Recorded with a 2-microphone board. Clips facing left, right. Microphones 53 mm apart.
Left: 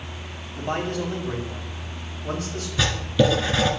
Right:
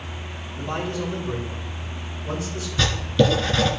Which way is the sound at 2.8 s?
10° left (ahead or behind).